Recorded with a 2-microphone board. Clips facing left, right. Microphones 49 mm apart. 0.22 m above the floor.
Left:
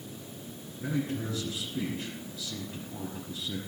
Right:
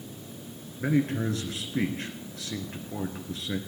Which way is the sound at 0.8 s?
65° right (ahead or behind).